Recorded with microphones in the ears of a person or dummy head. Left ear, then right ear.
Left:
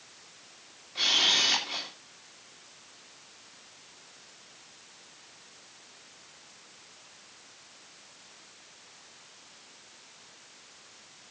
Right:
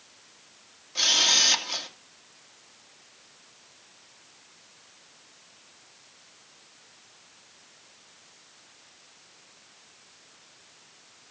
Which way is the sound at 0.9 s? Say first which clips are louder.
Right 3 dB; 85° right.